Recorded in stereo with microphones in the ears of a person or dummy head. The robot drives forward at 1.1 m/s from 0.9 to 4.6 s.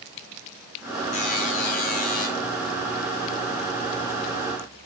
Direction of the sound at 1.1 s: 40° left (ahead or behind).